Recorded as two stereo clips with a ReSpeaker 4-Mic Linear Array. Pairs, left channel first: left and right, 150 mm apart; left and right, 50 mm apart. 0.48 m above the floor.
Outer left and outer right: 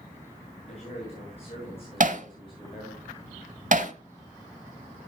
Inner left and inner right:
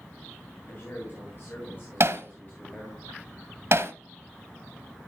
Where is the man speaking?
45° left (ahead or behind), 8.5 m; by 3.0 s 30° left (ahead or behind), 8.5 m.